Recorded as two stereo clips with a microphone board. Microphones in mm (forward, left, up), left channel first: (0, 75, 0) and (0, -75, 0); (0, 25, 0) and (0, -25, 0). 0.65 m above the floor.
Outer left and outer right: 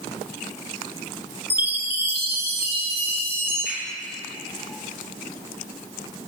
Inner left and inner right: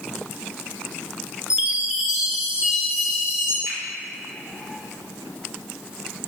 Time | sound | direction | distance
1.5 | a chime | 15° right (ahead or behind) | 2.5 m
3.7 | a finger snap | 70° right (ahead or behind) | 3.5 m